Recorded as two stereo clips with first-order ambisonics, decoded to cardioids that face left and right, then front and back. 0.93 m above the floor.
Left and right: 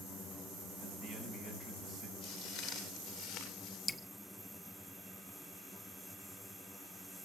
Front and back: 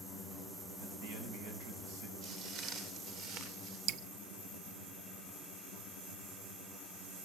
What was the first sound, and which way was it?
A man speaking, 160° right.